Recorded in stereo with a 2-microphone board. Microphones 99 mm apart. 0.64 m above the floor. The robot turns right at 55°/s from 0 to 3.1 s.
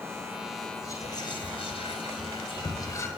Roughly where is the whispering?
Left.